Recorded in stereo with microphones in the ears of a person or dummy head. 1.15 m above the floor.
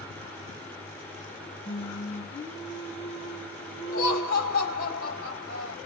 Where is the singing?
30° left (ahead or behind), 1.3 m.